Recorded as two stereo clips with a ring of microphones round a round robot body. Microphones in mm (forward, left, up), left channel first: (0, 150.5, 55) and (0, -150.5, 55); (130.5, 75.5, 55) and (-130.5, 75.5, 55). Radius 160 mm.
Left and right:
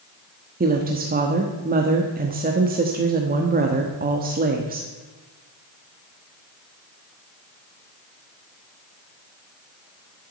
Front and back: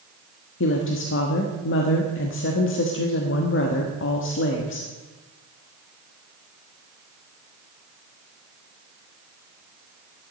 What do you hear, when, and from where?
0.6 s a woman speaking: 35° right, 1.1 m